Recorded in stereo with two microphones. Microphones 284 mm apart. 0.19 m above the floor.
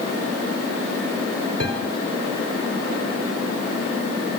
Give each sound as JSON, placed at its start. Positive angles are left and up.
{"t": 1.6, "sound": "a piano", "side_deg": -60, "distance_m": 4.0}